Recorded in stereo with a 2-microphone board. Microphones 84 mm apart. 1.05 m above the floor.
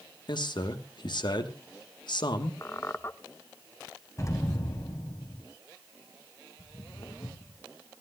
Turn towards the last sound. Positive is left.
turn(degrees=75)  # may be behind; listen again after turning